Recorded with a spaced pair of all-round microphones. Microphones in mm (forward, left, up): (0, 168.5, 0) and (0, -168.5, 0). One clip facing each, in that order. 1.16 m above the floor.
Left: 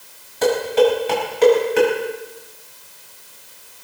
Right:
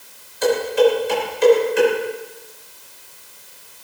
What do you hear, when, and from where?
0.4 s dishes clattering: 70° left (ahead or behind), 6 m